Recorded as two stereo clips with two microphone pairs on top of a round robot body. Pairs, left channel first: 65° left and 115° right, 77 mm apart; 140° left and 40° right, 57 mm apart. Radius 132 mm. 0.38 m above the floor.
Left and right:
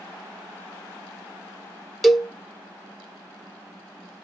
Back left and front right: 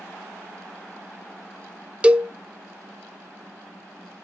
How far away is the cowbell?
About 0.5 m.